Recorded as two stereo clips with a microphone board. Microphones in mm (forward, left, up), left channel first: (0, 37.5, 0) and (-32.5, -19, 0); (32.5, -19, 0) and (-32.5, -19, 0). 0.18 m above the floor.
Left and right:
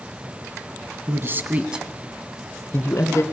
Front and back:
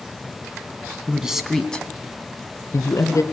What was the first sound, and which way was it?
A man speaking, 115° right.